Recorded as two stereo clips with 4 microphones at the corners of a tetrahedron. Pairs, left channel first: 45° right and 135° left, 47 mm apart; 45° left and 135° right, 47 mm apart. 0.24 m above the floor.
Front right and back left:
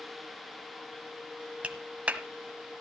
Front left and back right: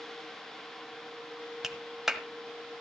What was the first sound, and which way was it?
A clap, 155° left.